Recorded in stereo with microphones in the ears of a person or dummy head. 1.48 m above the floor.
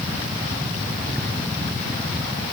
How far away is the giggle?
No giggle in this recording.